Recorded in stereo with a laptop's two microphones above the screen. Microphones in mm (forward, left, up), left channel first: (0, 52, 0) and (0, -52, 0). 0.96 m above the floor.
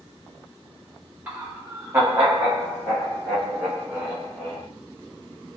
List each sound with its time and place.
1.3 s laughter: 15° right (ahead or behind), 0.7 m; by 4.7 s 10° right (ahead or behind), 1.7 m